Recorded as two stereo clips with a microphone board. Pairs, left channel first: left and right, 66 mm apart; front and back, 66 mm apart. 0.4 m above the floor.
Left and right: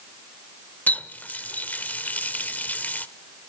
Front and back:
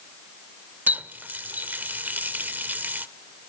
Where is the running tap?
135° left, 0.6 m.